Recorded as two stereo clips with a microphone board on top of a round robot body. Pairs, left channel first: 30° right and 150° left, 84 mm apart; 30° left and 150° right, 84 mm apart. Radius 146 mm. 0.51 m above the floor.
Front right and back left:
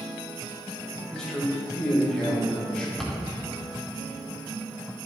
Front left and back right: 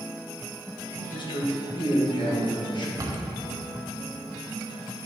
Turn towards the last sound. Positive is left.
turn(degrees=-115)